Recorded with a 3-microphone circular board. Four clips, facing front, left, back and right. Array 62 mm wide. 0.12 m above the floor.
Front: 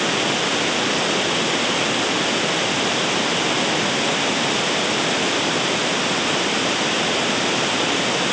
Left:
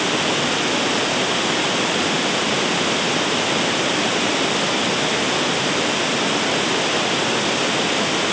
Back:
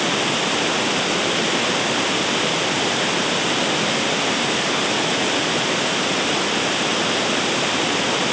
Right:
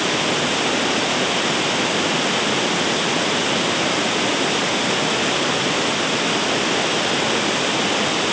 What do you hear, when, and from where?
Only background noise.